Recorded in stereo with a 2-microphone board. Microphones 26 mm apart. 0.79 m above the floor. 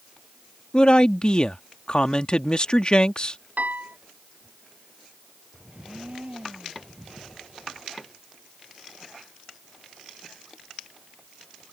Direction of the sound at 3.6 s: 75° right (ahead or behind).